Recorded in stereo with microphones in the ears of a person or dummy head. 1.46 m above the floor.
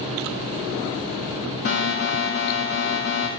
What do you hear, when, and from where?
1.6 s an alarm: 60° left (ahead or behind), 1.5 m